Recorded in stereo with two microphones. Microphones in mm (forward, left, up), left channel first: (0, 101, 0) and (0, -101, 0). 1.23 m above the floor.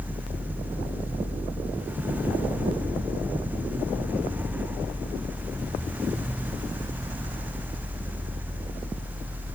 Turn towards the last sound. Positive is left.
No sound to turn to.